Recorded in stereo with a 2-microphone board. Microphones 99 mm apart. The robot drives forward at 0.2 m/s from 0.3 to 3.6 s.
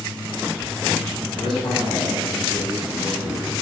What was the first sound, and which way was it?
A man speaking, 65° left (ahead or behind).